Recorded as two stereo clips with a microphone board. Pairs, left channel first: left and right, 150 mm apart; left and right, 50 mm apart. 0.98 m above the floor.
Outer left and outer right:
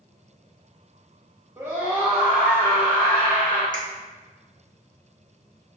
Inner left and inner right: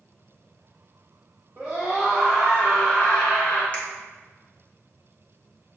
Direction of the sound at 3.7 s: 30° left (ahead or behind).